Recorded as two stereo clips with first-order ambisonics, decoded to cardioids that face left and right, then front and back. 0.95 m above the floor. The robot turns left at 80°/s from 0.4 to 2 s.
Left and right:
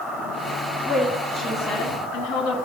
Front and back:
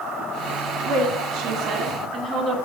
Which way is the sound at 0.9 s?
155° right.